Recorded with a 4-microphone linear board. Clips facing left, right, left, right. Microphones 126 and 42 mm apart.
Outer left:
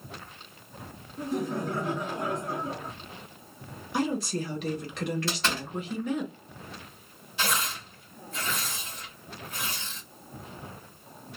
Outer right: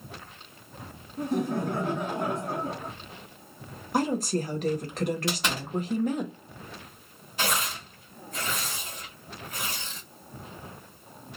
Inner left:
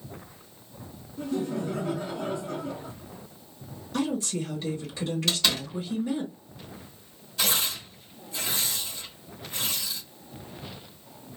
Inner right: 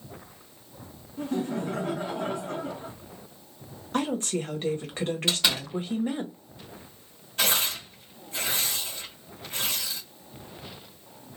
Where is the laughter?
55° right (ahead or behind), 2 m.